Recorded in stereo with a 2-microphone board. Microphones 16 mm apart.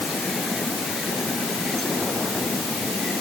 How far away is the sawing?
No sawing in this recording.